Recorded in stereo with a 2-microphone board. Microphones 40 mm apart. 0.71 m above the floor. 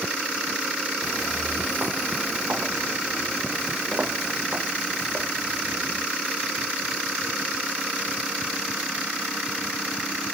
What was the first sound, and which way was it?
Footsteps, 40° right (ahead or behind).